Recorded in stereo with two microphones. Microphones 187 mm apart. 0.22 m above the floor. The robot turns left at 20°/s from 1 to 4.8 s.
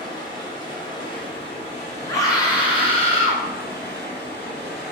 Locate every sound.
0.0 s running water: 155° left, 1.8 m; by 4.9 s 80° left, 1.8 m
2.1 s a scream: 15° left (ahead or behind), 2 m; by 3.4 s 40° left (ahead or behind), 2 m